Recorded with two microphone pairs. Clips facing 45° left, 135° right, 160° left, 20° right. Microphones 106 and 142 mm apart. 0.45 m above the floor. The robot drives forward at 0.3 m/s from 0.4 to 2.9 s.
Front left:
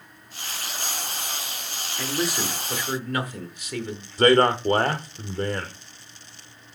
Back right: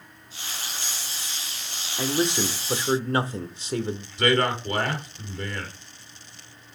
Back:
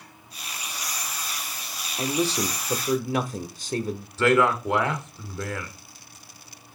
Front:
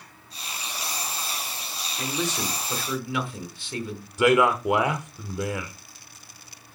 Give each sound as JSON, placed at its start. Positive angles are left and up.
{"t": 2.0, "sound": "a man speaking", "azimuth_deg": -175, "distance_m": 0.8}
{"t": 4.2, "sound": "a man speaking", "azimuth_deg": 50, "distance_m": 1.4}